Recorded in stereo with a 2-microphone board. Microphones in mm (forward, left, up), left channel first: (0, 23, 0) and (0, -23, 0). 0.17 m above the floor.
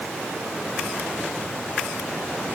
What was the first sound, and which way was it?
Only background noise.